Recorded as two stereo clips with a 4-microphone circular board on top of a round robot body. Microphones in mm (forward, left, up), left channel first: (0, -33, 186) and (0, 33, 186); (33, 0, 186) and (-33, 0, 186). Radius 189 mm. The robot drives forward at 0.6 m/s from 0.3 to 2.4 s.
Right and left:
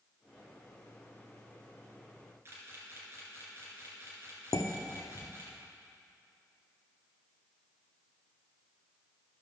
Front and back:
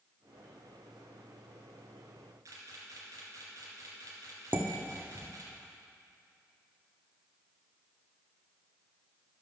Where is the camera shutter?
145° left, 2 m.